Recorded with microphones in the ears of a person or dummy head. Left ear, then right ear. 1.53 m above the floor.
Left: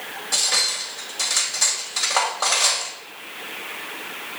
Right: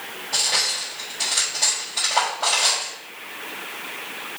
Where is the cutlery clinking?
80° left, 3.5 m.